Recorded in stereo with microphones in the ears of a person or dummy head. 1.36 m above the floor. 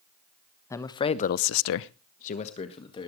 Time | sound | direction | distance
0.7 | a man speaking | 15° left (ahead or behind) | 1.3 m